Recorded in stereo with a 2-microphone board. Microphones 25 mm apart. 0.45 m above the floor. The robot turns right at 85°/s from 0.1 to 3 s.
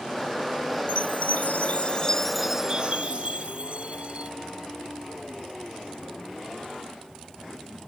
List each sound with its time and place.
0.9 s a chime: 55° left; by 4.3 s 130° right